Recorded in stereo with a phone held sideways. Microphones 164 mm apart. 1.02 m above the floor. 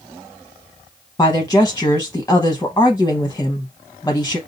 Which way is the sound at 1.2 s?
20° left (ahead or behind).